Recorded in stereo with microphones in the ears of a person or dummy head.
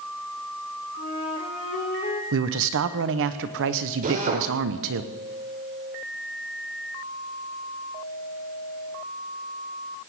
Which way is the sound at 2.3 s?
65° right (ahead or behind).